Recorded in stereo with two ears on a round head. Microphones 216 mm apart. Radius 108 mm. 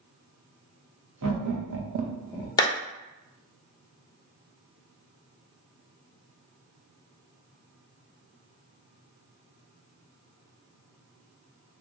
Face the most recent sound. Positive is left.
turn(degrees=15)  # may be behind; listen again after turning